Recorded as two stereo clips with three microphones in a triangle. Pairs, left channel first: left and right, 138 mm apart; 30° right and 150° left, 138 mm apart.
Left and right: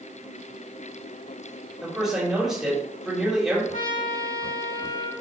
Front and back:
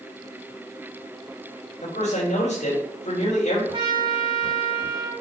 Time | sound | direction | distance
1.8 | a man speaking | 5° right | 5 m
3.7 | a trumpet | 100° left | 3.5 m